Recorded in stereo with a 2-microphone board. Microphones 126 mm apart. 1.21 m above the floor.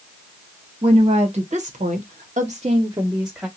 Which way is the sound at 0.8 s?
50° right (ahead or behind).